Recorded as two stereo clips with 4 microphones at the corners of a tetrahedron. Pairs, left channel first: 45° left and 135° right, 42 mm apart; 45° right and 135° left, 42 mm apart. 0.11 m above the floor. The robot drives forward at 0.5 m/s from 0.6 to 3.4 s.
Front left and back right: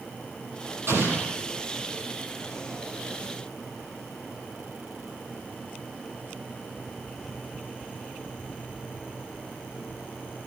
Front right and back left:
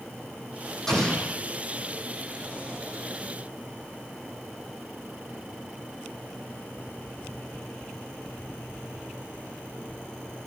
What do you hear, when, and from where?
0.9 s an explosion: 120° right, 4.5 m; by 1.4 s 125° right, 5 m